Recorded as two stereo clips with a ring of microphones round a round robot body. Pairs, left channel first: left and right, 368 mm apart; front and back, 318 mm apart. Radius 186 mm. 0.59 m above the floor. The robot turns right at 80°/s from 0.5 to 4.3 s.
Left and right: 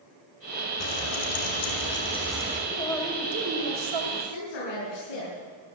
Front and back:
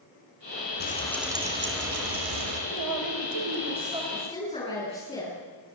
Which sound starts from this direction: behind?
A man speaking, at 2.7 s.